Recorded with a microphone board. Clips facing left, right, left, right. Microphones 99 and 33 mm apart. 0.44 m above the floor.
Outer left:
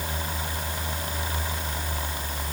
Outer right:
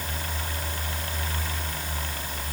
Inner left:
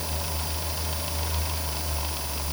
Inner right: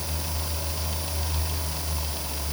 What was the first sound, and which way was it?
Only background noise.